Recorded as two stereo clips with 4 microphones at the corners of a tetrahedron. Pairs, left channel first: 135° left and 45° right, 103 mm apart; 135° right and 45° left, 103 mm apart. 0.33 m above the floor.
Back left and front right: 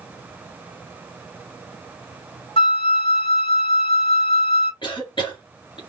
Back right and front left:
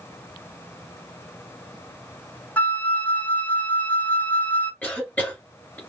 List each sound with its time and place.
2.6 s a flute: 150° left, 0.7 m
4.8 s a cough: 155° left, 2 m